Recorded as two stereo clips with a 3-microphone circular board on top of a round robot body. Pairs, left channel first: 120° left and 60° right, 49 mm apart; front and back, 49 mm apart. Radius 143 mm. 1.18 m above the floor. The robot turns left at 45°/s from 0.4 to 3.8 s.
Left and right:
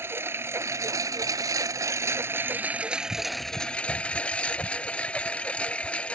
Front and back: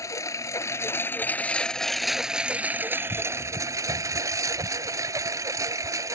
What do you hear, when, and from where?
0.0 s a lawn mower: 15° right; by 6.1 s 170° right